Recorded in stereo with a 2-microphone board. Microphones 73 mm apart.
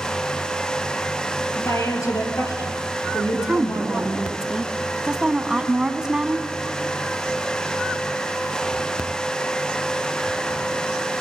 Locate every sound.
1.6 s a woman speaking: 40° left (ahead or behind), 3.5 m; by 4.2 s 60° left (ahead or behind), 4.5 m
3.3 s a woman speaking: 10° right (ahead or behind), 1.1 m